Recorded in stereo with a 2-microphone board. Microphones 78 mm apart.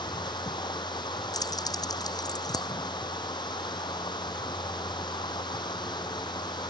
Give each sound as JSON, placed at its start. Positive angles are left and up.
{"t": 0.0, "sound": "running water", "side_deg": 70}
{"t": 1.3, "sound": "keys jangling", "side_deg": 55}